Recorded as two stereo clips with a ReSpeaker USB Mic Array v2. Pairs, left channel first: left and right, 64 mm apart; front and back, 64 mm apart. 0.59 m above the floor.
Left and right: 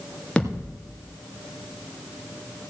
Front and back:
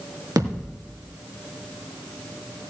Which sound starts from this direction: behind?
A thud, at 0.4 s.